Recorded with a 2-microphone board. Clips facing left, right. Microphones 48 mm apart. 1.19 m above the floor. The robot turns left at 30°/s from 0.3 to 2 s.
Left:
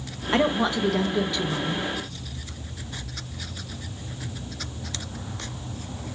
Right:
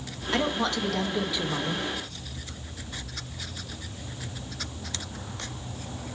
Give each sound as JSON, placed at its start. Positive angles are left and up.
{"t": 0.3, "sound": "a woman speaking", "azimuth_deg": 25, "distance_m": 0.7}